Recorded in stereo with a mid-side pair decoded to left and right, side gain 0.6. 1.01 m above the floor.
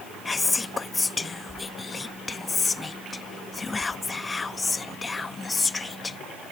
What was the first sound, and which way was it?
Whispering, 20° left.